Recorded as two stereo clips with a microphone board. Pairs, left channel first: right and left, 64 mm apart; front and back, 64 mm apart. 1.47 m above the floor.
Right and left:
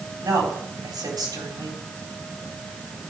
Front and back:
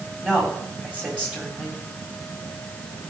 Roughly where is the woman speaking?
Left.